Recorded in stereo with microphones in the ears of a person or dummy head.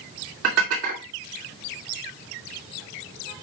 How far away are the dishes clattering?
About 2 m.